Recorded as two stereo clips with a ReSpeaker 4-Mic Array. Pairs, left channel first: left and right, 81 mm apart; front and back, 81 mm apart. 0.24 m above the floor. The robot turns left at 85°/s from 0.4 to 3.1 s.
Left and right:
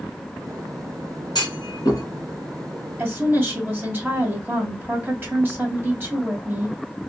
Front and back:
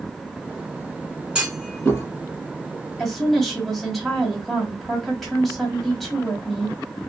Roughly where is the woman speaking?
Right.